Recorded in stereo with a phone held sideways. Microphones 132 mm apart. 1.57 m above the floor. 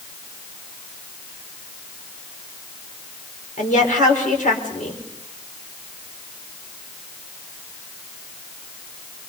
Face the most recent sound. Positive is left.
turn(degrees=80)